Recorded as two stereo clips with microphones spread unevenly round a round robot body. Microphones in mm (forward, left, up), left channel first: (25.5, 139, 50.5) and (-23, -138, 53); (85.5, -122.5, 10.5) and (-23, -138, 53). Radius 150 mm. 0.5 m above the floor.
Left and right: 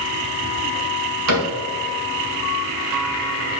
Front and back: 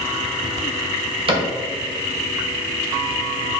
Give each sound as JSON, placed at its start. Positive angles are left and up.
{"t": 1.3, "sound": "a cupboard door", "azimuth_deg": -130, "distance_m": 2.0}